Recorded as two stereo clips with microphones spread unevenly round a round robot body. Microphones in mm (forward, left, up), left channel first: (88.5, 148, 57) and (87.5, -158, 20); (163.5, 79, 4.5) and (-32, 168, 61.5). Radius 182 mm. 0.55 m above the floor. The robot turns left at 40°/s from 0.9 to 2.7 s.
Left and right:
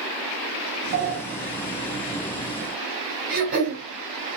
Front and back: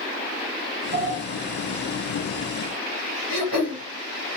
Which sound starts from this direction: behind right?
A sliding door, at 0.9 s.